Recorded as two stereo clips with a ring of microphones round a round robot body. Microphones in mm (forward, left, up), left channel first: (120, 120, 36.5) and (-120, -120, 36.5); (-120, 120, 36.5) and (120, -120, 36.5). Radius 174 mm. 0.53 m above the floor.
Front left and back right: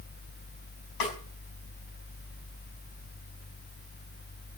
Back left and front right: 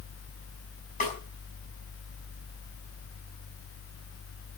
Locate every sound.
1.0 s a snare drum: 70° left, 5 m